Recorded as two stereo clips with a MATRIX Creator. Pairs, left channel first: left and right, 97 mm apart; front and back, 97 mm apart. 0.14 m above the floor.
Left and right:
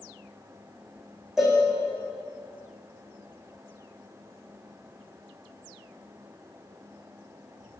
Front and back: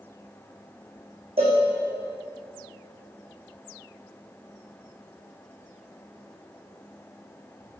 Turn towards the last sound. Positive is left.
turn(degrees=-175)